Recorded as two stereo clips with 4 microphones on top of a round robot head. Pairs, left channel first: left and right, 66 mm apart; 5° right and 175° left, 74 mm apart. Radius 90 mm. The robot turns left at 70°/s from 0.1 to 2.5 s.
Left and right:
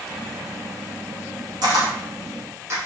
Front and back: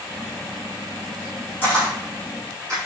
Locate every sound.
1.6 s a camera shutter: 75° right, 3 m; by 2.8 s 135° right, 3 m